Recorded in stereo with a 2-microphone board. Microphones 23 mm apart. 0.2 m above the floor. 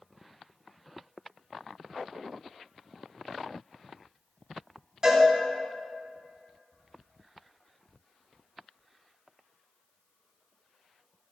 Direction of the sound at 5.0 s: 30° right (ahead or behind).